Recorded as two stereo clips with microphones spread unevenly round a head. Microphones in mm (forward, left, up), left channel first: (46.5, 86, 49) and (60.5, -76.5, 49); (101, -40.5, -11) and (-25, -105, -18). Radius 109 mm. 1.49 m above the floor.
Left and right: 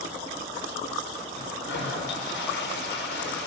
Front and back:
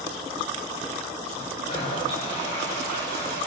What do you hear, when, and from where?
1.3 s a toilet flushing: 90° left, 6.5 m